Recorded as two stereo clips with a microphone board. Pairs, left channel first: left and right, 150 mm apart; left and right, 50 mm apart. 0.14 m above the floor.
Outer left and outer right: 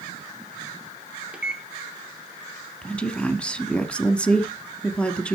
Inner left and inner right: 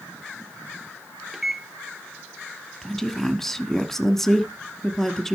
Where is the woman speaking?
5° left (ahead or behind), 1.2 m.